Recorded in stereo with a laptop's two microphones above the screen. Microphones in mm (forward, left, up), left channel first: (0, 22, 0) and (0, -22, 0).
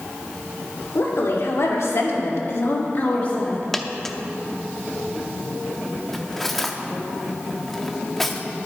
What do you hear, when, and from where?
0.9 s a woman speaking: 70° left (ahead or behind), 2.5 m; by 3.7 s 25° left (ahead or behind), 1.8 m
3.7 s a dropped coin: 10° left (ahead or behind), 0.5 m
6.1 s cutlery clinking: 5° left (ahead or behind), 1.0 m